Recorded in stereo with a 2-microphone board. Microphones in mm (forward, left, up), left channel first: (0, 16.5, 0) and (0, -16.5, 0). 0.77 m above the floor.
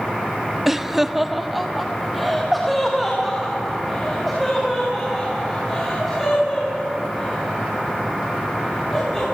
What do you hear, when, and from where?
0.7 s laughter: 10° right (ahead or behind), 0.9 m; by 9.2 s 5° left (ahead or behind), 12 m